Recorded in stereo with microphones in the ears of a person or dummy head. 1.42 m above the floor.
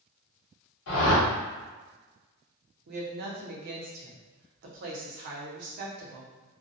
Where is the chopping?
No chopping in this recording.